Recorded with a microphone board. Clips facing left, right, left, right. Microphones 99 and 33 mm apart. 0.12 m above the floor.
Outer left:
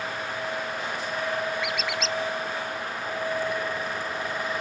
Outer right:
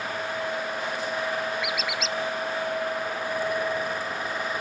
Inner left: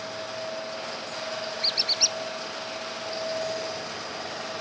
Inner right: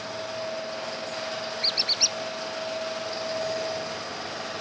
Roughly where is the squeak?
Centre.